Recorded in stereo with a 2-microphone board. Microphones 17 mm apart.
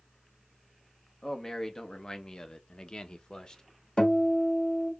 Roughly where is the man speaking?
Left.